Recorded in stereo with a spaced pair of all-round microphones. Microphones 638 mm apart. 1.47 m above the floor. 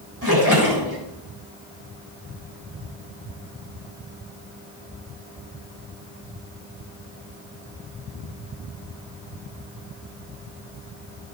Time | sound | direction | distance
0.2 | a splash | 30° right (ahead or behind) | 4 m